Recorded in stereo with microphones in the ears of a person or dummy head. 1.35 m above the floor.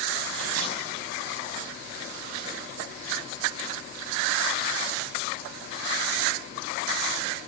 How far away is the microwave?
About 6.5 m.